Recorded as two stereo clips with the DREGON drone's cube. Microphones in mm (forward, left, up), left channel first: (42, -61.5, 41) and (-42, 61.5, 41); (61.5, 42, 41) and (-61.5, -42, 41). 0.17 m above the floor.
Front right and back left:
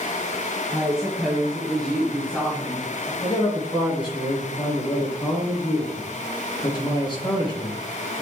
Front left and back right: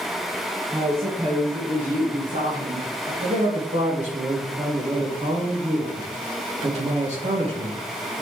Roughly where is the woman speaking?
Behind right.